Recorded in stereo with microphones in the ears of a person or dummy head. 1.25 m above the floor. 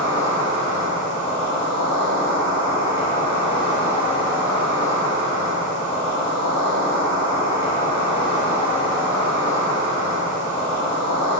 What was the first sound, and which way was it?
An insect, 5° right (ahead or behind).